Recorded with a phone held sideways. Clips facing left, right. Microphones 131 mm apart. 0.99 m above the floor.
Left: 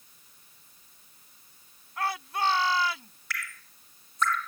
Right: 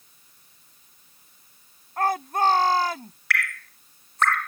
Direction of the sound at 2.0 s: 45° right (ahead or behind).